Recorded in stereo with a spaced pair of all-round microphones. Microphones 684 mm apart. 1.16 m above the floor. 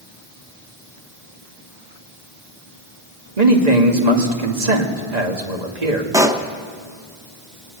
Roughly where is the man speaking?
Right.